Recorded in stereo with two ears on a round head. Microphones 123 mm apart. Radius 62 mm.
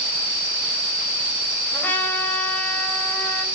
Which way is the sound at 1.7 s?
15° left (ahead or behind).